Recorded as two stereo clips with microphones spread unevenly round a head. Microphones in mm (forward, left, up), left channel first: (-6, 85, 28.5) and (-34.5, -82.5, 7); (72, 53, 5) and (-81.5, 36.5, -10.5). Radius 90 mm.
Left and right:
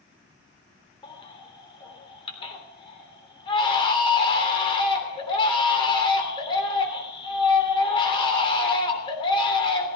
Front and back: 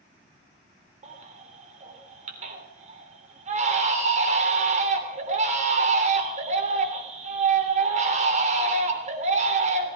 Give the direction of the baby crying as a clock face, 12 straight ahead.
7 o'clock.